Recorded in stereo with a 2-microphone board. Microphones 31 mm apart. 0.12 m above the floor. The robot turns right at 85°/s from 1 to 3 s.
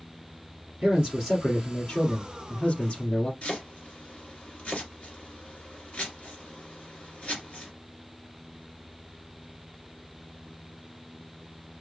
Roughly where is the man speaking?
Ahead right.